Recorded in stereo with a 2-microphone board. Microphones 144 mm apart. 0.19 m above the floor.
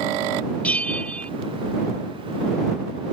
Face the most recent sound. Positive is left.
turn(degrees=10)  # may be behind; listen again after turning